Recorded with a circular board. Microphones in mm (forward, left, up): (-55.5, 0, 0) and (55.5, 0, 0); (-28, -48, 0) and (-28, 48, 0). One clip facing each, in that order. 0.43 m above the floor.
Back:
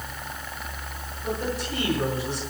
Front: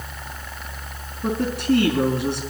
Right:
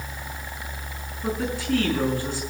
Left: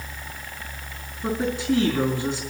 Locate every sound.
1.2 s a woman speaking: 10° left, 4 m